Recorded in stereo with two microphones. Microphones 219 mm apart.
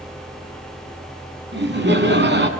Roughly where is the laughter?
Right.